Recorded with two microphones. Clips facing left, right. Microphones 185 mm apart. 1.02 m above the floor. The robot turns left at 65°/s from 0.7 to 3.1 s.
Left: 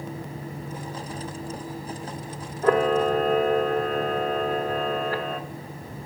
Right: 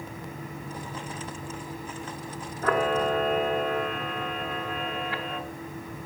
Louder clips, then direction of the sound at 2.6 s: Left 5 dB; 140° left.